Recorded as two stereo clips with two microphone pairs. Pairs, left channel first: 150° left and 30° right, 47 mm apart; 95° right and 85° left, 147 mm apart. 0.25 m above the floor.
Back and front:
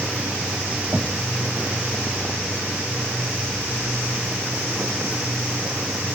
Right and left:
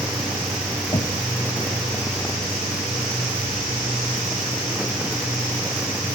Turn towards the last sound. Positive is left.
turn(degrees=-75)